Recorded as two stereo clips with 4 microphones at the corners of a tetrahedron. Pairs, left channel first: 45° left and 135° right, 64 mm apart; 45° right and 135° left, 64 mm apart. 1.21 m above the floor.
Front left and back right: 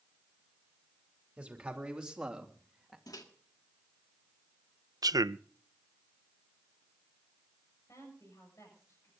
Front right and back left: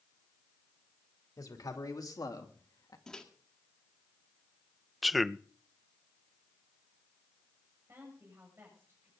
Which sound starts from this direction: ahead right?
A man speaking, at 1.4 s.